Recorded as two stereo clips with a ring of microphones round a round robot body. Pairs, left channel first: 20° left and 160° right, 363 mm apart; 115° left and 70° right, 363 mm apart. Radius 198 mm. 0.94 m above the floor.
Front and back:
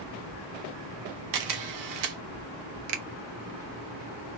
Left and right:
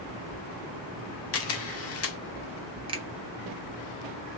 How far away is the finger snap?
About 0.8 m.